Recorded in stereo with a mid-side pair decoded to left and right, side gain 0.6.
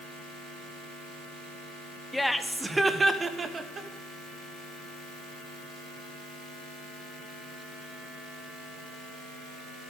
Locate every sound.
2.1 s laughter: 10° left, 1.4 m; by 3.9 s 35° right, 2.5 m